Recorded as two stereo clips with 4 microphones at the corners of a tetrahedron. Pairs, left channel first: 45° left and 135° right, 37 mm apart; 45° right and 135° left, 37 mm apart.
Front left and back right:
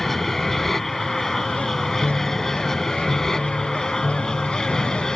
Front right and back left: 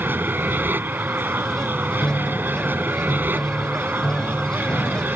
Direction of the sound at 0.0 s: 125° left.